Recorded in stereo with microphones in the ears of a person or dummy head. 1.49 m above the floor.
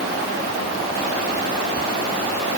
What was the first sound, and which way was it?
Only background noise.